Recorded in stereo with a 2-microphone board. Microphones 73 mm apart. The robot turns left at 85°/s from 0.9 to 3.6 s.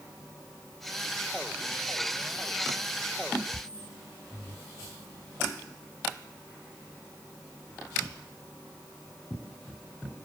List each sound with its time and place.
Only background noise.